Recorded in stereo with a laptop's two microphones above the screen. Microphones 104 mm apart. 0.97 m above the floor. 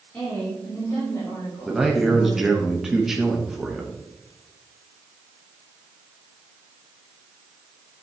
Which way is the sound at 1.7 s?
5° right (ahead or behind).